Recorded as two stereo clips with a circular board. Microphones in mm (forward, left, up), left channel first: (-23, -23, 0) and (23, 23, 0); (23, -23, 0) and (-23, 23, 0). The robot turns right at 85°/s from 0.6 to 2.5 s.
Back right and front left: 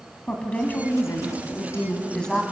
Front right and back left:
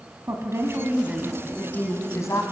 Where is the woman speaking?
160° left, 2.5 m; by 2.4 s 45° right, 2.5 m.